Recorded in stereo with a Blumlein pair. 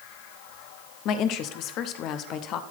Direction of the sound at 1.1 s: 35° left.